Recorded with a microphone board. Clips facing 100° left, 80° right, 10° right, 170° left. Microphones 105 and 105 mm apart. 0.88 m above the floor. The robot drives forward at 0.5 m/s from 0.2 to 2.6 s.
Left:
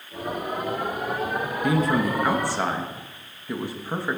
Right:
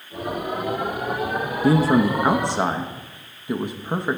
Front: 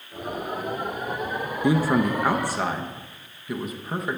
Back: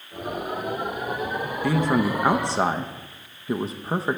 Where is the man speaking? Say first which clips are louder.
Right 5 dB, front 1 dB; 75° right, 0.6 m; by 4.2 s 140° right, 0.7 m.